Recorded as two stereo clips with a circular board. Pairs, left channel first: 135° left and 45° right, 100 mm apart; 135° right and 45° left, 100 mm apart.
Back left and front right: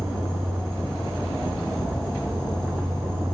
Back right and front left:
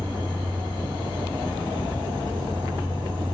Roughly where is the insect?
Ahead.